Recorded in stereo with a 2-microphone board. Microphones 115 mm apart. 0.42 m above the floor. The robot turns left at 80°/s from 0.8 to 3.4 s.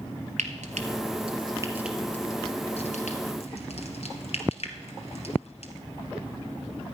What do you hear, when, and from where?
0.4 s frying: 85° right, 1.9 m; by 5.7 s 65° left (ahead or behind), 1.9 m